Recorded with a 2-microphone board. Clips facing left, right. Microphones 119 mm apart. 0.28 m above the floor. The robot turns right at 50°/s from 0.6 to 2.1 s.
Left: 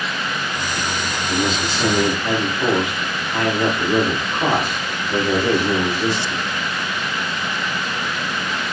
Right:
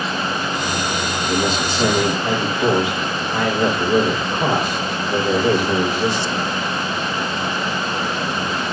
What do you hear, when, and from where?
1.3 s a man speaking: 50° right, 5 m; by 6.4 s 10° right, 5 m